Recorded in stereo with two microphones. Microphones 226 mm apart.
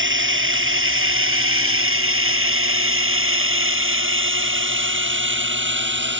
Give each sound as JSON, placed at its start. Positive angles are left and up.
{"t": 0.0, "sound": "a drone", "side_deg": -60}